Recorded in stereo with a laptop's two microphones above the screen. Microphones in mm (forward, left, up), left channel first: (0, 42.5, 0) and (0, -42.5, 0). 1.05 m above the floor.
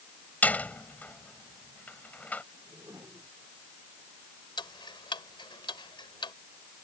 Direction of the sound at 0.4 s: 20° left (ahead or behind).